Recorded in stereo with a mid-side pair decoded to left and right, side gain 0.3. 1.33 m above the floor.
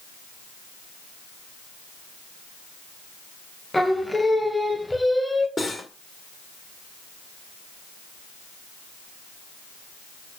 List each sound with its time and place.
3.7 s singing: 15° left, 1.6 m
5.6 s cutlery clinking: 45° left, 2 m